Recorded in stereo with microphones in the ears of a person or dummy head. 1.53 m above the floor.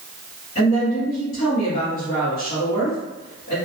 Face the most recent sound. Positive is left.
turn(degrees=40)  # may be behind; listen again after turning